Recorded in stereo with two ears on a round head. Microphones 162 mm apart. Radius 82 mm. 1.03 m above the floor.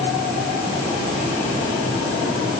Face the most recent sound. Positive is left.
No sound to turn to.